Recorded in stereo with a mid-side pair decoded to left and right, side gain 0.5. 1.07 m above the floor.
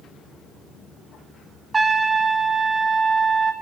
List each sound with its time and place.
1.7 s a trumpet: 25° right, 1.5 m